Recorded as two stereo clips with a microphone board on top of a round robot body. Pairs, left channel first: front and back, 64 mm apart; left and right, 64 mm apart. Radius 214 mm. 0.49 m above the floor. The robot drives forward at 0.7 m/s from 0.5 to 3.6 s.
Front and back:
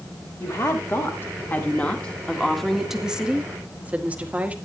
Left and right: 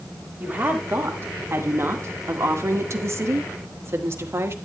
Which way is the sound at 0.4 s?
35° right.